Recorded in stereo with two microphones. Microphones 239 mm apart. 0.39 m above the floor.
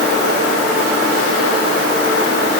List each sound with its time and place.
Only background noise.